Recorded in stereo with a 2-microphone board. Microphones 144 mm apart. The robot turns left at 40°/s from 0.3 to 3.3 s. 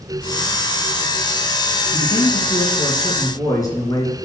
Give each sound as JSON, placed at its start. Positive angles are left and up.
{"t": 1.9, "sound": "a man speaking", "azimuth_deg": 85, "distance_m": 3.0}